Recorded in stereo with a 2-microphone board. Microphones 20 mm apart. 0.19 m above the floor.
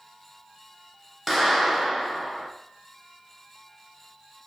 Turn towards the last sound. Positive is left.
turn(degrees=-15)  # may be behind; listen again after turning